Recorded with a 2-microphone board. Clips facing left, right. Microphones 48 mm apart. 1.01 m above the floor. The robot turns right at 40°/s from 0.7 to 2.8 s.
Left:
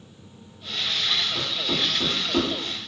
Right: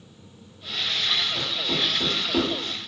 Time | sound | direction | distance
1.4 | knocking | 35° left (ahead or behind) | 1.1 m